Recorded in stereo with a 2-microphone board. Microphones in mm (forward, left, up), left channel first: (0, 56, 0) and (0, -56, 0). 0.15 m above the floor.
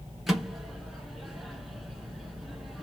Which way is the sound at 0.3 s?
5° right (ahead or behind).